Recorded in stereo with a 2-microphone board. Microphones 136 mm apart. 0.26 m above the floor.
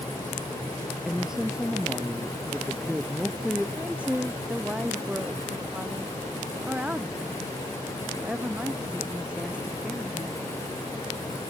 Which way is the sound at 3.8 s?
10° right (ahead or behind).